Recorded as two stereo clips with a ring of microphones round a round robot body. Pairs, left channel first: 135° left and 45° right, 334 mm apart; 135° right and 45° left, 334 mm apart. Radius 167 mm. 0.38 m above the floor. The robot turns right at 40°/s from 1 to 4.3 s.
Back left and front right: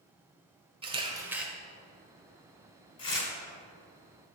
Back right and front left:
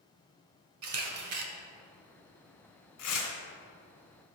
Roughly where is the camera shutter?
Ahead left.